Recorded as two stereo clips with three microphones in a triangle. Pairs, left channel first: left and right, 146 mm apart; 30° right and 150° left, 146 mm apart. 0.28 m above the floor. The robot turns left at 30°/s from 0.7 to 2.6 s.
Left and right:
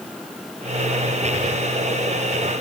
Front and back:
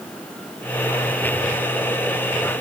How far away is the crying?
I don't hear crying.